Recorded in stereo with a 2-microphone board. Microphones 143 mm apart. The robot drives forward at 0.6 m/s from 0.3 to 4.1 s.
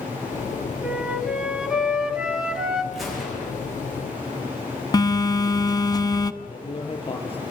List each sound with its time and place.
0.8 s a flute: 5° right (ahead or behind), 1.7 m
2.9 s a gunshot: centre (ahead or behind), 8 m
4.9 s a phone buzzing: 25° left (ahead or behind), 1.0 m
6.4 s a man speaking: 35° left (ahead or behind), 5 m